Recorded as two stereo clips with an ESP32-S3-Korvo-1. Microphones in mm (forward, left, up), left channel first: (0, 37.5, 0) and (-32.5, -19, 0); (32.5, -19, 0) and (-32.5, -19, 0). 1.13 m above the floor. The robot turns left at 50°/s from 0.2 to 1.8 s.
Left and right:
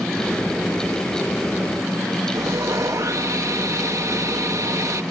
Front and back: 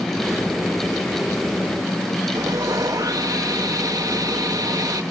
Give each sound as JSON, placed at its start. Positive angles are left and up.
{"t": 2.4, "sound": "sawing", "azimuth_deg": -155}